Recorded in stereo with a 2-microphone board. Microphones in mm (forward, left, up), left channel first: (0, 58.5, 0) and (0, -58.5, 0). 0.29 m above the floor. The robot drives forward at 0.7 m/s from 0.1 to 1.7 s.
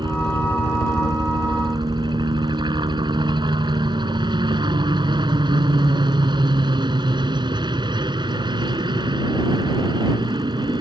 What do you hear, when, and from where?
0.0 s a helicopter: 40° right (ahead or behind)